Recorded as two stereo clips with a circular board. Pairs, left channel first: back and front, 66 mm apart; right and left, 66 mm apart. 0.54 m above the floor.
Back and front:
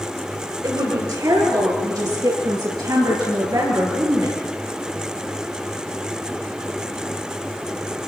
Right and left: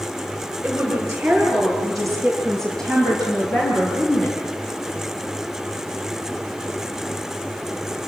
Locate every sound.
0.6 s a woman speaking: 15° left, 8 m; by 4.4 s 25° right, 9 m